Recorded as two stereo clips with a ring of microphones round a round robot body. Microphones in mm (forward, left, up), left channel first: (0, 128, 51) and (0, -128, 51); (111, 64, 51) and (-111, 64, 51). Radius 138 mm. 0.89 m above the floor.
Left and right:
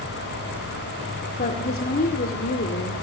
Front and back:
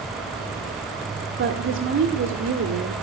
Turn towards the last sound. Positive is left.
turn(degrees=145)